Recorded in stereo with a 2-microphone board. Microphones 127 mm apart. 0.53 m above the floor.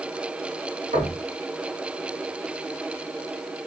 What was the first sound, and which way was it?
Knocking, 80° right.